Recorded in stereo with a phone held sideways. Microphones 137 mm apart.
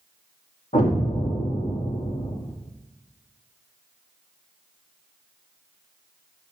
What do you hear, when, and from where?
0.7 s an explosion: 70° left (ahead or behind), 2.5 m